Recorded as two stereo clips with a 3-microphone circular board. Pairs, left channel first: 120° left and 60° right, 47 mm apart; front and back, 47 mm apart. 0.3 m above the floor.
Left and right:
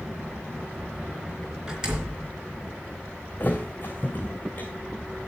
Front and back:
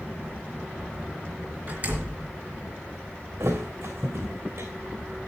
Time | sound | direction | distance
1.7 | a door slam | 130° right | 3.5 m
3.4 | a thud | 175° left | 2.5 m